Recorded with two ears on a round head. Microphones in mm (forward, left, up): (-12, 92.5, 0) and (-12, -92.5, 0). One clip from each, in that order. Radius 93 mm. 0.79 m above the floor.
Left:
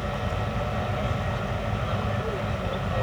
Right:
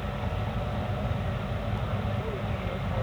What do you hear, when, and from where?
0.0 s an aircraft: 70° left (ahead or behind)